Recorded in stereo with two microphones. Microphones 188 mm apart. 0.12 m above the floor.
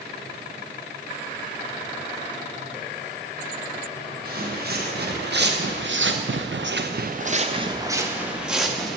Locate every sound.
4.2 s footsteps: 50° right (ahead or behind), 1.8 m; by 9.0 s 5° left (ahead or behind), 1.4 m